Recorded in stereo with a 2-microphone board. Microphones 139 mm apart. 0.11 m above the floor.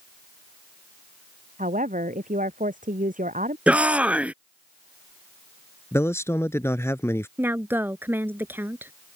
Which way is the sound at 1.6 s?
70° right (ahead or behind).